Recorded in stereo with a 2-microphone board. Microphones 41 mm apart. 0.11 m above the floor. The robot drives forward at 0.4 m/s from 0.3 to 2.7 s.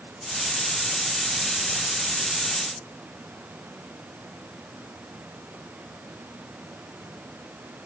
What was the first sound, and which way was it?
Only background noise.